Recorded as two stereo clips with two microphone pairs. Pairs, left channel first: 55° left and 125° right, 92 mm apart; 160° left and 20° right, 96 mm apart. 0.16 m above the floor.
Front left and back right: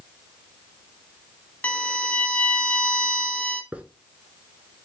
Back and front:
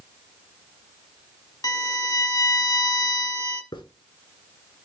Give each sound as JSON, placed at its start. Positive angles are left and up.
{"t": 1.6, "sound": "a violin", "azimuth_deg": 125, "distance_m": 0.5}
{"t": 3.7, "sound": "a hiss", "azimuth_deg": 170, "distance_m": 0.5}